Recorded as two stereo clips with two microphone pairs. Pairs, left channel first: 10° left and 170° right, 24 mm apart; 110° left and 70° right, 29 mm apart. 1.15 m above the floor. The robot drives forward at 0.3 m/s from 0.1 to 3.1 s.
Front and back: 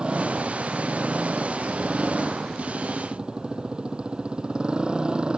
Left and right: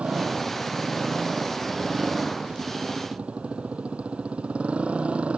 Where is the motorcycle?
115° right.